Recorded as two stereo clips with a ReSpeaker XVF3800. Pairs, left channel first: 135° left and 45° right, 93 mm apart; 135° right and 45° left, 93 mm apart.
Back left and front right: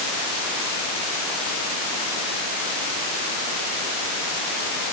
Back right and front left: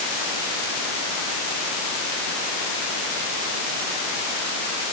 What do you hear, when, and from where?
Only background noise.